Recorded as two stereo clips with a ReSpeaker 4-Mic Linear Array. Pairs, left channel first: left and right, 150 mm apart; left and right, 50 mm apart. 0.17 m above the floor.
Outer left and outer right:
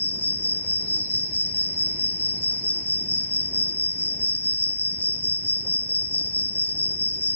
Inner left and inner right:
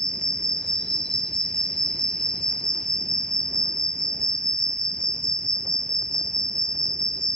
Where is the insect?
15° left (ahead or behind), 0.8 m.